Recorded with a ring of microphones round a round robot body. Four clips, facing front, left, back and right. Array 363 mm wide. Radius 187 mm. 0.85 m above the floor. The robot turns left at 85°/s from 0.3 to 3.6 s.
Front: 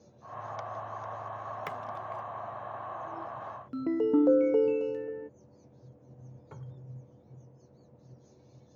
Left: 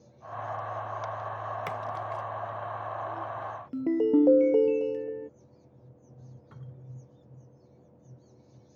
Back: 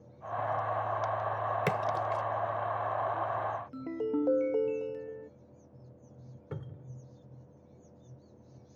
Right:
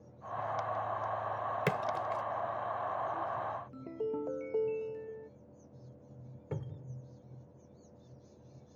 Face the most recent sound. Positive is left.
turn(degrees=-125)